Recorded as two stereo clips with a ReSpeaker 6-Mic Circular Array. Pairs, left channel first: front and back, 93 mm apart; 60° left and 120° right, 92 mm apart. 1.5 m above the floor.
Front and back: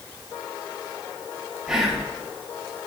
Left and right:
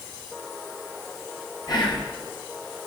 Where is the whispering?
95° left, 0.9 m.